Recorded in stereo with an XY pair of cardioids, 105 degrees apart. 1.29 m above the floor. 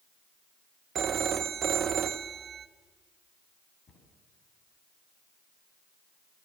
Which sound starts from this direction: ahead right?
A phone ringing, at 0.9 s.